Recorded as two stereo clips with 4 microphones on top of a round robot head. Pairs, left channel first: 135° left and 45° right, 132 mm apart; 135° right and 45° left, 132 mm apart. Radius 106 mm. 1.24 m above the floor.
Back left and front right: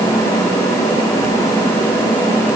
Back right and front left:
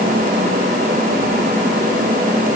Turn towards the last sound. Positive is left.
No sound to turn to.